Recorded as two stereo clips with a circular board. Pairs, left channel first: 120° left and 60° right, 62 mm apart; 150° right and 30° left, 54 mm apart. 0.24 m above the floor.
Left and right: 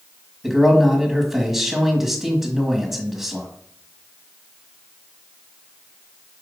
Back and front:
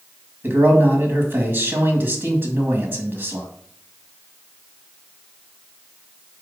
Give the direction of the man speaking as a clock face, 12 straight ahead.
11 o'clock.